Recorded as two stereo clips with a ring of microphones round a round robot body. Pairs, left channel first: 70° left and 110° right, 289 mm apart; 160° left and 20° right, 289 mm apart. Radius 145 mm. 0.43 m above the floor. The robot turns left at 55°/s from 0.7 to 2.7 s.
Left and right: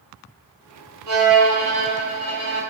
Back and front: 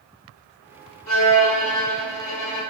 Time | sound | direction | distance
1.1 | a violin | 140° right | 1.6 m